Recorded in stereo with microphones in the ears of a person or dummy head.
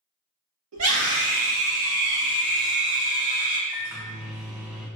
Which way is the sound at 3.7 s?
10° right (ahead or behind).